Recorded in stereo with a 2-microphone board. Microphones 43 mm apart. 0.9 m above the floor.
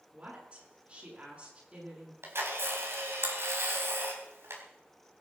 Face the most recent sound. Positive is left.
turn(degrees=-80)